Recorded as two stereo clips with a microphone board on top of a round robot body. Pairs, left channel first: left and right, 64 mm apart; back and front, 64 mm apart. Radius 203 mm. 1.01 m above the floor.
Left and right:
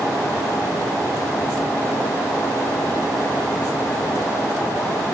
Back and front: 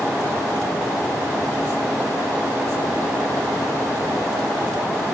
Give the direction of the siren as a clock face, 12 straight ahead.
I don't hear a siren.